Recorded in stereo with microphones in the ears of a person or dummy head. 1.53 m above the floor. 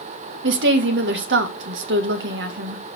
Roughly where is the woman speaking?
Right.